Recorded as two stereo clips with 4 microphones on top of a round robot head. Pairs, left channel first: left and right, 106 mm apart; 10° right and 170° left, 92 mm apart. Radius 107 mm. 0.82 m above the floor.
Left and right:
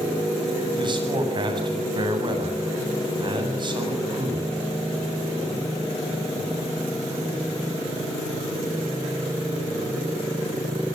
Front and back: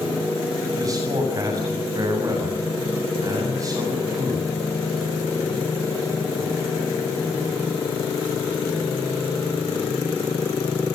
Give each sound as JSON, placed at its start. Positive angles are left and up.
{"t": 0.8, "sound": "a man speaking", "azimuth_deg": -135, "distance_m": 8.0}